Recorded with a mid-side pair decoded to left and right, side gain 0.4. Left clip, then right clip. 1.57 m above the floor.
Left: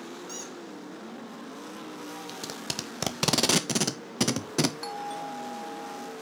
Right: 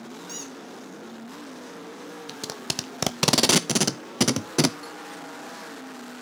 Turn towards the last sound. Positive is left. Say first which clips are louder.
# left 4 dB
turn(degrees=60)